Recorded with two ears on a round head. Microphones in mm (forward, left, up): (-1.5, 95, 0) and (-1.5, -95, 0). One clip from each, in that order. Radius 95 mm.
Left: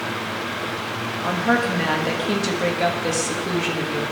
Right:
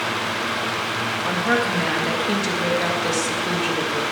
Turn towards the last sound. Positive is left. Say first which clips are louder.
# left 1 dB
turn(degrees=-5)  # may be behind; listen again after turning